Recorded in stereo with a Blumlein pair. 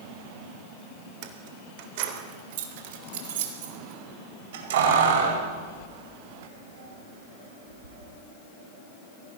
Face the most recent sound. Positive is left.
turn(degrees=-60)